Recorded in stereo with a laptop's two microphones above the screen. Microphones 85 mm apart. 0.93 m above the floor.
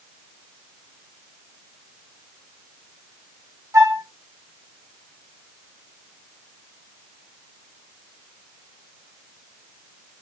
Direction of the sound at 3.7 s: 35° right (ahead or behind).